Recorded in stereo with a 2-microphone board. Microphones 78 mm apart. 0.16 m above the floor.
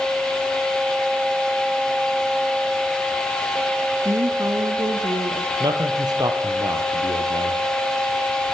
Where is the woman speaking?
45° right (ahead or behind), 2.0 m; by 5.5 s 55° right (ahead or behind), 2.5 m.